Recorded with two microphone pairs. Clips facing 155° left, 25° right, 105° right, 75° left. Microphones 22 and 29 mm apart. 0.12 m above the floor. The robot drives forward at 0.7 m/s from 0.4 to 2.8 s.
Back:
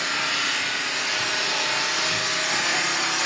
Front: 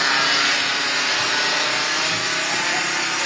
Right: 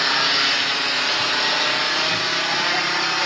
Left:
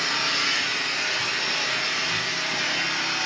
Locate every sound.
0.0 s an engine running: 80° right, 2 m; by 3.2 s 120° right, 2.5 m